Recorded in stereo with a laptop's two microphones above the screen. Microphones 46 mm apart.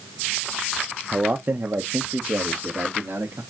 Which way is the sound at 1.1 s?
30° right (ahead or behind).